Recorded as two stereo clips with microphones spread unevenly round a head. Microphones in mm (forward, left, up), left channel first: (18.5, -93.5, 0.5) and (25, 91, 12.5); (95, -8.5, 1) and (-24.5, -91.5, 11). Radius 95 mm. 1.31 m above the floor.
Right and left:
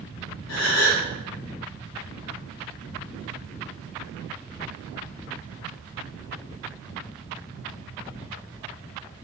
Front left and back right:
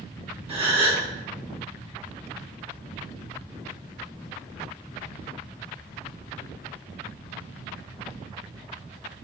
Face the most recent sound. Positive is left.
turn(degrees=-100)